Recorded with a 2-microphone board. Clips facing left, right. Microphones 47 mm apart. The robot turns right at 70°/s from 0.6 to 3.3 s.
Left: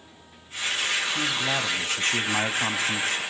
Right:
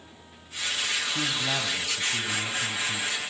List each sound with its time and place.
1.1 s a man speaking: 10° right, 2.5 m; by 3.2 s 130° left, 2.5 m